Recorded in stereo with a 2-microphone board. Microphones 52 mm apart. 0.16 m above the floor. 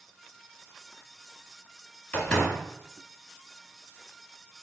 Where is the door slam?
20° left (ahead or behind), 1.3 m.